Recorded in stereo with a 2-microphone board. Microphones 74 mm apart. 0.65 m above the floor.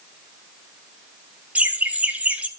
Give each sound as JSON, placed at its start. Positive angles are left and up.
{"t": 1.6, "sound": "laughter", "side_deg": -20, "distance_m": 1.5}